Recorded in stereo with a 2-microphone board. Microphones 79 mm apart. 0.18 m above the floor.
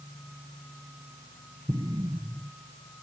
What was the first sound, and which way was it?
An explosion, 70° right (ahead or behind).